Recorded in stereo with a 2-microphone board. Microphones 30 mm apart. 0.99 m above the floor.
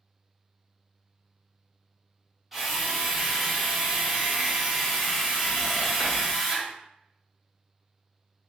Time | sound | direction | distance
2.5 | a drill | 5° left (ahead or behind) | 1.0 m